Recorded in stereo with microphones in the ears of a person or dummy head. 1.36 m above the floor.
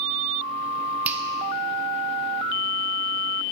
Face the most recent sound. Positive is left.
turn(degrees=-15)  # may be behind; listen again after turning